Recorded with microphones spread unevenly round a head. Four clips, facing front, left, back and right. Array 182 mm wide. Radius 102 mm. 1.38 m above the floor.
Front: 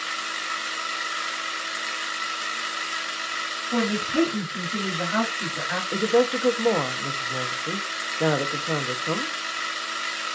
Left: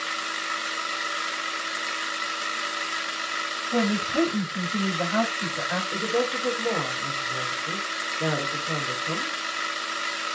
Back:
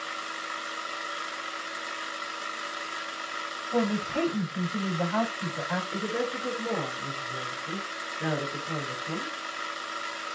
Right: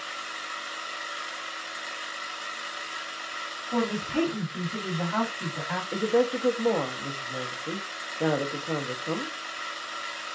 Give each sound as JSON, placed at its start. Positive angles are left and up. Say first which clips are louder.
{"t": 0.0, "sound": "a machine running", "louder": "left 6 dB, front 4 dB", "azimuth_deg": 60, "distance_m": 0.8}
{"t": 3.7, "sound": "a woman speaking", "louder": "left 3 dB, front 3 dB", "azimuth_deg": -15, "distance_m": 3.0}
{"t": 5.9, "sound": "a woman speaking", "louder": "right 4 dB, front 9 dB", "azimuth_deg": -15, "distance_m": 0.9}